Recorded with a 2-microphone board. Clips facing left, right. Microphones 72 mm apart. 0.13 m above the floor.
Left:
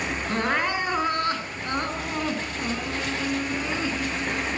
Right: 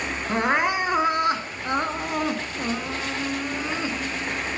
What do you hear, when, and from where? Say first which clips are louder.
0.3 s crying: right 4 dB; 20° right (ahead or behind), 1.1 m